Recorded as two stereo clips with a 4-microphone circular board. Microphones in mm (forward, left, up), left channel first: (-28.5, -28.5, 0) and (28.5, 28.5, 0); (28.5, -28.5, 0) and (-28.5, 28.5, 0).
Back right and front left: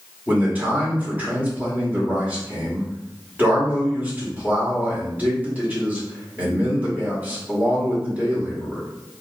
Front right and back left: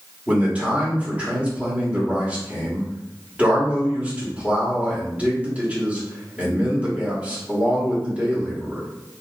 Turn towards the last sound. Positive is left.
turn(degrees=85)